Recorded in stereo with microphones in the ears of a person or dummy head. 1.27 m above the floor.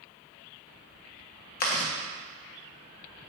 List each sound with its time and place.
1.6 s chewing: 50° left (ahead or behind), 1.3 m